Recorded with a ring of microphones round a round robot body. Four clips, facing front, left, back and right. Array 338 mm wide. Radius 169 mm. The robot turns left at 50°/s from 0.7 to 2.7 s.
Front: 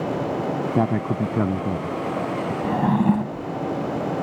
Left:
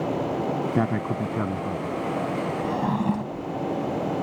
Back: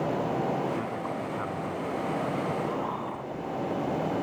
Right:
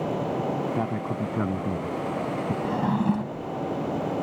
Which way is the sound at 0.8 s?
25° left.